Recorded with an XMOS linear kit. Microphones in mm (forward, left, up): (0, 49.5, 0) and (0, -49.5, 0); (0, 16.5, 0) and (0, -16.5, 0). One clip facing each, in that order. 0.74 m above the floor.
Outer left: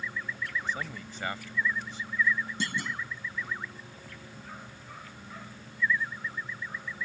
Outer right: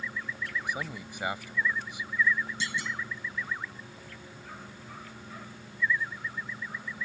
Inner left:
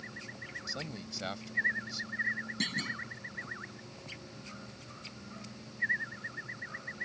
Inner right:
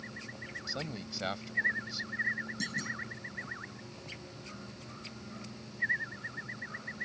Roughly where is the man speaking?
Centre.